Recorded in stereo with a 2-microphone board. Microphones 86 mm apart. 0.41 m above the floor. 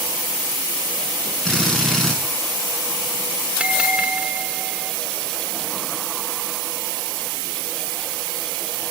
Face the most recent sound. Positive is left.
turn(degrees=-15)  # may be behind; listen again after turning